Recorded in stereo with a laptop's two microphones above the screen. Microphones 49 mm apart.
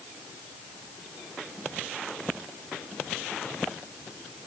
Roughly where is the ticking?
I don't hear ticking.